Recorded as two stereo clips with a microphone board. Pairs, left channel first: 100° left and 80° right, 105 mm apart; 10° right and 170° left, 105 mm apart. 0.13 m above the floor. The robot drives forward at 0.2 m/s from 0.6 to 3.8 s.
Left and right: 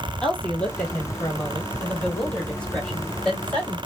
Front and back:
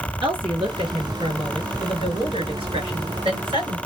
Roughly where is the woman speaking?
Behind.